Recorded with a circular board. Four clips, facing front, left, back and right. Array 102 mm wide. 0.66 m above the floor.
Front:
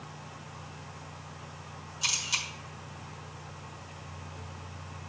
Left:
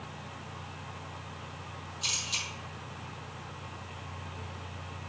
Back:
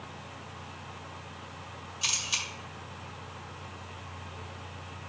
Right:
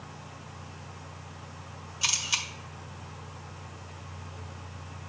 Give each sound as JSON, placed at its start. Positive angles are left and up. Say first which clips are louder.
{"t": 2.0, "sound": "a camera shutter", "louder": "right 7 dB, front 1 dB", "azimuth_deg": -90, "distance_m": 1.5}